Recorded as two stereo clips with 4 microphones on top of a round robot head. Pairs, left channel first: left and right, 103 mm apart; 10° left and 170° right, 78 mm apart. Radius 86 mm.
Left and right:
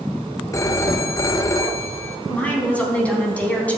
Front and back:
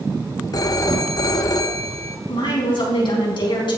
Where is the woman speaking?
15° left, 4 m.